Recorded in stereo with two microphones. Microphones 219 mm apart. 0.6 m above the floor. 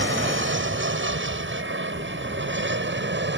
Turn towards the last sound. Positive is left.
turn(degrees=-55)  # may be behind; listen again after turning